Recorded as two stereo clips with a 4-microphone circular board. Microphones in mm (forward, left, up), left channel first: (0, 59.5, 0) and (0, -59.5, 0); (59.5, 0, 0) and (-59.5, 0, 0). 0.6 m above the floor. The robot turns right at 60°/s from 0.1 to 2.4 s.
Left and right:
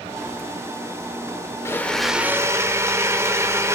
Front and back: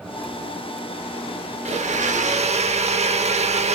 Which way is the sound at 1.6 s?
155° left.